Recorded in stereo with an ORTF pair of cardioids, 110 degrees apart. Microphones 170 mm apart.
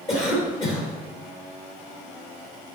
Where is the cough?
40° left, 3.5 m.